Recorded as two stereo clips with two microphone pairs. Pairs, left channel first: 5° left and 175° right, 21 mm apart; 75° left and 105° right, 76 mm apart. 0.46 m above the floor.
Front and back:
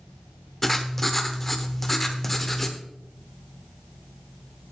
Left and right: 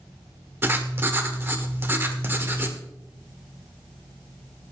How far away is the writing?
About 1.1 m.